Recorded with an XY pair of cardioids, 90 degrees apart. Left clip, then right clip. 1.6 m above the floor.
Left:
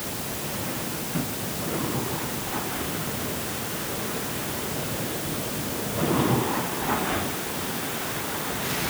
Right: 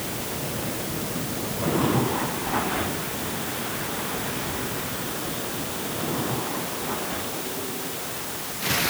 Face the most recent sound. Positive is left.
No sound to turn to.